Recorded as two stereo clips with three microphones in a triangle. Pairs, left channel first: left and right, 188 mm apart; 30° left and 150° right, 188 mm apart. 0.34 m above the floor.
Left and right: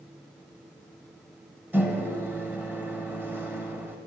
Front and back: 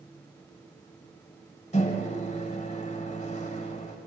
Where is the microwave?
15° right, 1.0 m.